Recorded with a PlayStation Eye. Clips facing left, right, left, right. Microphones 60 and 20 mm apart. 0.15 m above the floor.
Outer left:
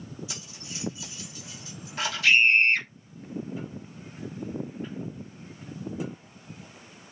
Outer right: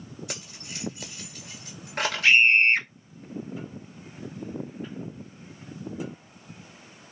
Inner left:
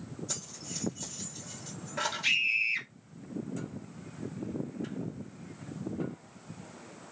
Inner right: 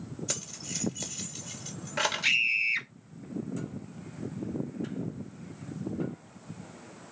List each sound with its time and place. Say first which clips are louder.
0.3 s keys jangling: outer right 2 dB, inner right 6 dB; 60° right (ahead or behind), 1.5 m
2.2 s a scream: outer right 1 dB, inner right 1 dB; 30° right (ahead or behind), 1.1 m